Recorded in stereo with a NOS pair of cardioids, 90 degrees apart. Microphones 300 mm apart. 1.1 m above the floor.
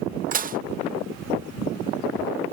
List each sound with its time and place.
0.3 s dishes clattering: 30° right